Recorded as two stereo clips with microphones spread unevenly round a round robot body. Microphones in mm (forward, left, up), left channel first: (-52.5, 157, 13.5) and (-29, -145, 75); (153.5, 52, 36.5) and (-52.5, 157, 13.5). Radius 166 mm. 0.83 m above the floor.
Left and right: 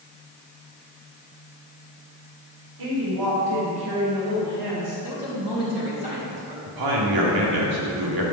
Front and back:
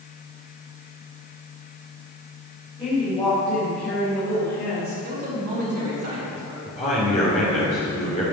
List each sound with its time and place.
2.8 s a woman speaking: 105° right, 3.5 m; by 4.9 s 80° right, 5.5 m
5.0 s a man speaking: 155° right, 4.5 m
6.7 s a man speaking: 95° right, 2.5 m